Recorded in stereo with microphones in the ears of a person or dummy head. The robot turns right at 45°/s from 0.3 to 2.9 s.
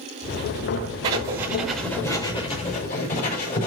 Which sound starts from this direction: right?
Writing, at 1.0 s.